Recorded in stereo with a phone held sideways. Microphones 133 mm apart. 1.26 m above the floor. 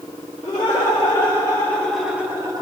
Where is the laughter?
45° left (ahead or behind), 2 m; by 2.6 s 35° right (ahead or behind), 1.0 m.